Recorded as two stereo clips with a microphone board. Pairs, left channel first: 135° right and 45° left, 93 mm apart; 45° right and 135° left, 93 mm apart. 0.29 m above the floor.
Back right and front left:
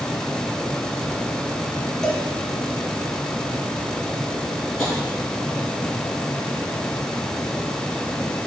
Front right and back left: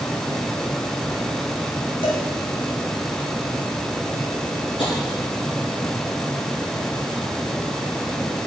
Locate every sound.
2.0 s a cowbell: 50° right, 1.5 m
4.8 s tapping: 55° right, 3.5 m